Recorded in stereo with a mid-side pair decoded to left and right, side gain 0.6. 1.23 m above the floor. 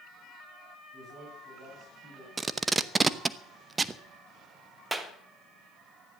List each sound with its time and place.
0.9 s a man speaking: 25° right, 7.5 m
2.4 s tape being pulled: 20° right, 0.8 m
4.9 s a clap: 10° right, 1.8 m